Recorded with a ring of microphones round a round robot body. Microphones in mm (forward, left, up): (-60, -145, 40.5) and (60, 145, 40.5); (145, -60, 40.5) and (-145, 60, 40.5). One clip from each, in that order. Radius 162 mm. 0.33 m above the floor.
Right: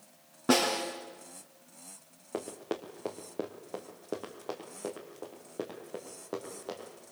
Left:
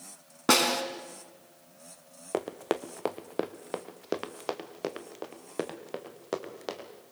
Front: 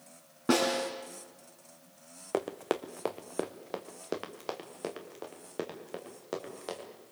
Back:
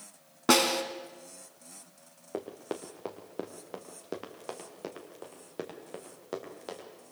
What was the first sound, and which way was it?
A snare drum, 115° left.